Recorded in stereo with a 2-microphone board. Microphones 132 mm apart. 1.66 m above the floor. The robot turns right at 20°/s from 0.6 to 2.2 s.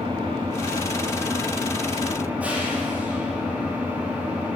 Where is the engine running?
40° right, 3 m; by 4.6 s 10° right, 3 m.